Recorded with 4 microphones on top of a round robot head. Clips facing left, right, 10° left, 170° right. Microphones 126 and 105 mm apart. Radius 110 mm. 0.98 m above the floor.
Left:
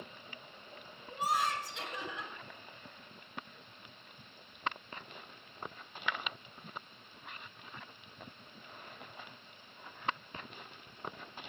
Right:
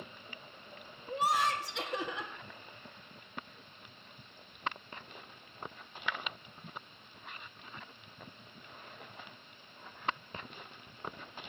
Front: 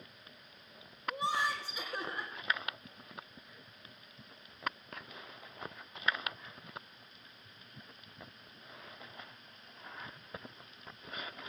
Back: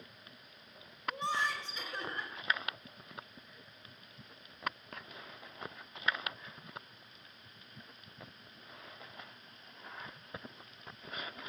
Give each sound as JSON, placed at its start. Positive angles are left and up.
{"t": 1.1, "sound": "laughter", "azimuth_deg": -70, "distance_m": 1.8}